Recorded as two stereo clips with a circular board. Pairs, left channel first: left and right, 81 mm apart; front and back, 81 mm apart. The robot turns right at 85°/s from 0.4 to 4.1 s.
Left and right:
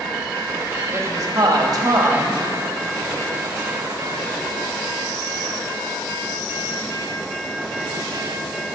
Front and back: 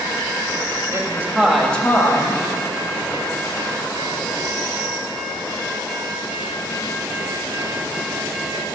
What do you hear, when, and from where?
0.9 s a woman speaking: 145° right, 1.3 m; by 2.4 s 15° right, 1.3 m